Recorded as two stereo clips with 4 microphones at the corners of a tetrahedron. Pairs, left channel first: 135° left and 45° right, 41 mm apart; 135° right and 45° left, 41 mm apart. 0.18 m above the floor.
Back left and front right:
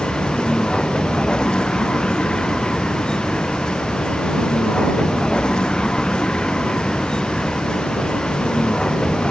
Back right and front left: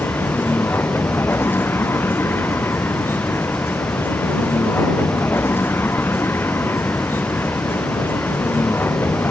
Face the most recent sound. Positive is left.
turn(degrees=-155)